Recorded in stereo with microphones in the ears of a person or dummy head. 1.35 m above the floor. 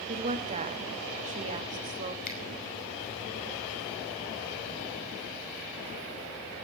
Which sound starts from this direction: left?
A finger snap, at 2.2 s.